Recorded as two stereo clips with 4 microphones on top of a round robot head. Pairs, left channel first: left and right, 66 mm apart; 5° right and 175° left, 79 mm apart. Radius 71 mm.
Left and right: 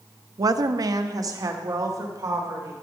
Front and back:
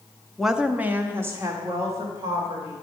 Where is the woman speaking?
95° right, 0.7 m; by 2.7 s 130° right, 3 m.